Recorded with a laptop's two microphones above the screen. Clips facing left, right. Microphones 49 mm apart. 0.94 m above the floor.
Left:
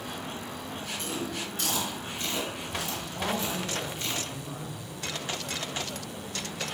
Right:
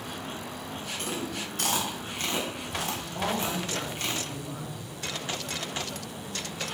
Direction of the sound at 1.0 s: 55° right (ahead or behind).